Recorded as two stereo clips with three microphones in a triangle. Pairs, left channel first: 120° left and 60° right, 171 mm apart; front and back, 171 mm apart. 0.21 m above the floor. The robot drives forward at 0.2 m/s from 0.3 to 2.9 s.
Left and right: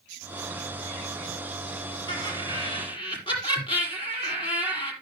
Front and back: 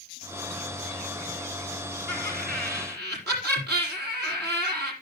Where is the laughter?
175° right, 5 m; by 4.9 s straight behind, 5.5 m.